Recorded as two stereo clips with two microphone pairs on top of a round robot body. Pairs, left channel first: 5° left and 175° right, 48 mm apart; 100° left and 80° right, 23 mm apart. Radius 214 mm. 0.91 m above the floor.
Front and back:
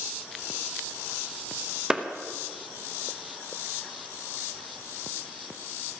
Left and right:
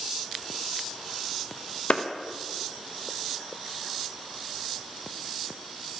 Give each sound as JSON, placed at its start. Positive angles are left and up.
{"t": 1.9, "sound": "a clap", "azimuth_deg": 105, "distance_m": 1.2}